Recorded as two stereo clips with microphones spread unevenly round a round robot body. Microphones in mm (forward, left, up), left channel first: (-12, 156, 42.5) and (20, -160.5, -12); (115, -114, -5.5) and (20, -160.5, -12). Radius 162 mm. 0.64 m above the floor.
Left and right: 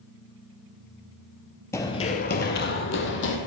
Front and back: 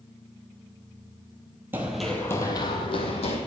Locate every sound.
1.7 s running footsteps: 150° left, 0.6 m; by 3.4 s 50° left, 1.3 m